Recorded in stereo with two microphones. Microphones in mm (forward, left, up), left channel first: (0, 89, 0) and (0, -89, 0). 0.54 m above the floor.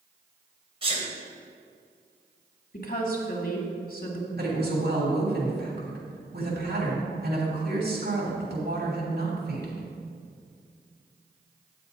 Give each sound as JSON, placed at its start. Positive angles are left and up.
{"t": 0.8, "sound": "a sneeze", "side_deg": -35, "distance_m": 3.0}
{"t": 2.7, "sound": "a woman speaking", "side_deg": 50, "distance_m": 1.4}
{"t": 4.3, "sound": "a woman speaking", "side_deg": -65, "distance_m": 3.0}